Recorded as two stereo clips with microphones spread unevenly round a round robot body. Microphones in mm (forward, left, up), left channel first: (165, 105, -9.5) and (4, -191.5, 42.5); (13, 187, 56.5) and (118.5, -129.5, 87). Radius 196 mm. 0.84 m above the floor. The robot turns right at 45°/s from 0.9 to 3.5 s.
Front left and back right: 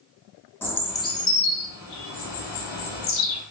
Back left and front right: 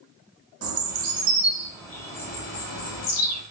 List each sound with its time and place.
0.6 s a bird: 25° right, 0.8 m; by 3.4 s 90° left, 0.8 m